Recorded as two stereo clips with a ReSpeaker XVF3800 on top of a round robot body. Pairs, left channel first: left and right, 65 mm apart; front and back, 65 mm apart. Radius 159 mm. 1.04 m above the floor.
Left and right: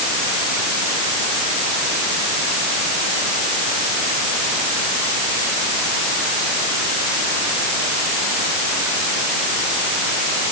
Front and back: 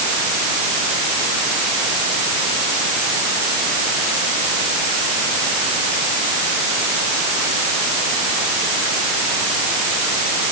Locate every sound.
Only background noise.